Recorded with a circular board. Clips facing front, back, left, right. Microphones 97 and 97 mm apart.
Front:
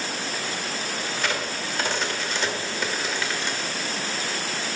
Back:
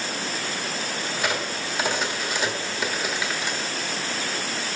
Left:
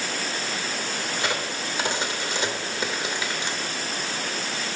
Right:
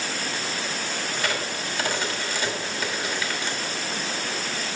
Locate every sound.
1.2 s a crack: 110° left, 1.4 m